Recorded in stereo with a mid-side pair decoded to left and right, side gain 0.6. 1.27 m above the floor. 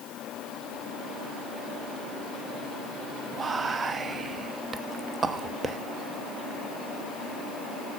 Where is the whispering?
35° right, 0.6 m.